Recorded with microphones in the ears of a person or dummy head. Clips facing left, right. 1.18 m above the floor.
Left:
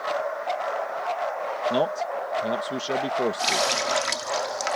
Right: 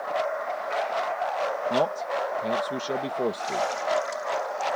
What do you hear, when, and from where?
1.7 s a man speaking: 5° left (ahead or behind)
3.4 s a running tap: 80° left